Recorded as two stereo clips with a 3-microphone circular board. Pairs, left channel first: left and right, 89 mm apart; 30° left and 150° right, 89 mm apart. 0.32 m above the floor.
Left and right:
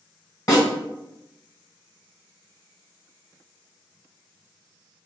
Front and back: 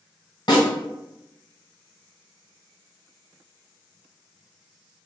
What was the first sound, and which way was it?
A snare drum, 55° left.